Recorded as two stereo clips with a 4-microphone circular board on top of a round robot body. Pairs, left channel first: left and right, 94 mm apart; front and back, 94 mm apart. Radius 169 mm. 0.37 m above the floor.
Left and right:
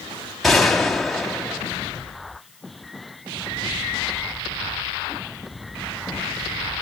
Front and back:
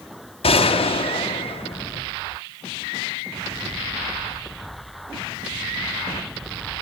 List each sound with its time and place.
0.4 s a gunshot: straight ahead, 2 m